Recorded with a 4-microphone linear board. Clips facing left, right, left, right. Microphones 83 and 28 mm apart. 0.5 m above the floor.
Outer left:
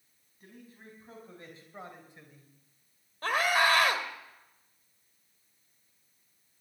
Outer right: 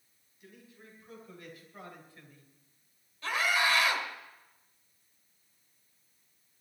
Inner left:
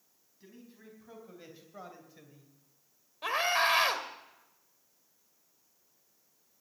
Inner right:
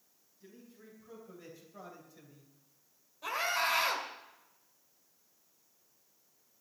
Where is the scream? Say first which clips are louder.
Outer left 3 dB, inner left 4 dB; 50° left (ahead or behind), 2 m.